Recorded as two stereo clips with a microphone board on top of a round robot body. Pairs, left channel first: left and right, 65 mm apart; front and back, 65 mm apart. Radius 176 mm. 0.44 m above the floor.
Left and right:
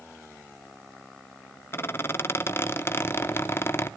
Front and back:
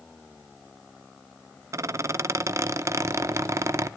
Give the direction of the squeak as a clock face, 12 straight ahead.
7 o'clock.